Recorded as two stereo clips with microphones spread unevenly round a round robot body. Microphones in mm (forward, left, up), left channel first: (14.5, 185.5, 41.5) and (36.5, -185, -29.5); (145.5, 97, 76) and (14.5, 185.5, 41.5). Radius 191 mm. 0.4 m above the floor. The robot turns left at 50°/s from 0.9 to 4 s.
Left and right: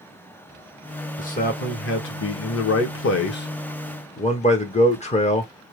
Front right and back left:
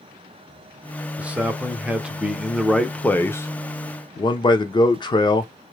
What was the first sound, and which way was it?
A man speaking, 160° left.